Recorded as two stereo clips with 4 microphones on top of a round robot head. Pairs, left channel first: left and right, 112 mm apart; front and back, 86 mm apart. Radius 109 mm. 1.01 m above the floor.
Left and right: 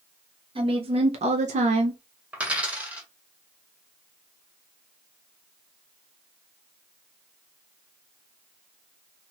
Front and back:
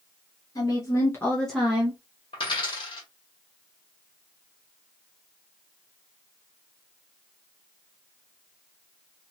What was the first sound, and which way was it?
A woman speaking, 50° right.